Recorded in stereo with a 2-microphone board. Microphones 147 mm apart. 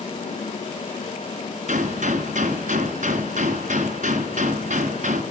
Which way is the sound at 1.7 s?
60° right (ahead or behind).